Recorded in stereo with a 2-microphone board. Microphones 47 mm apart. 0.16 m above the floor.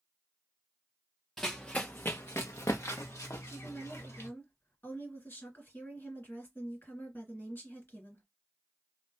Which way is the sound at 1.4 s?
5° left (ahead or behind).